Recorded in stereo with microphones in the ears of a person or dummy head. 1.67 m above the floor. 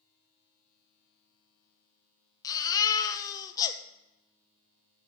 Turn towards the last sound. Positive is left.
turn(degrees=20)  # may be behind; listen again after turning